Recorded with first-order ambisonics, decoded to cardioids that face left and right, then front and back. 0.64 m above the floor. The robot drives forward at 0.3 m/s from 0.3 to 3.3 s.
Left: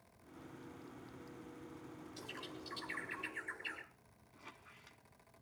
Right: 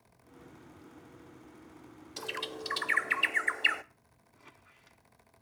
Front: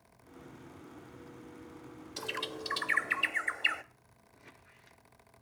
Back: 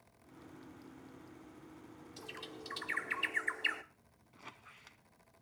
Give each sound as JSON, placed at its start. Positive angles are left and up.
{"t": 2.2, "sound": "a bird", "azimuth_deg": -55, "distance_m": 0.7}
{"t": 4.3, "sound": "a squeak", "azimuth_deg": 175, "distance_m": 1.1}